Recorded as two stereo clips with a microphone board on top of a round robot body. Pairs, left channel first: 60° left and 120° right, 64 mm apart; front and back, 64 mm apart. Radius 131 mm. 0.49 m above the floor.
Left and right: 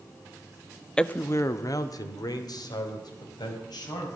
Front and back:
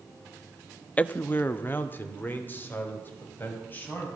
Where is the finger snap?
No finger snap in this recording.